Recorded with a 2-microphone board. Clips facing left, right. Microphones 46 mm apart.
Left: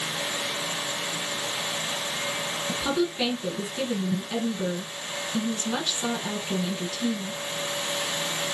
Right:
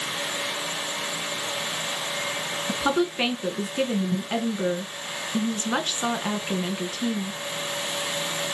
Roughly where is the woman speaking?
Right.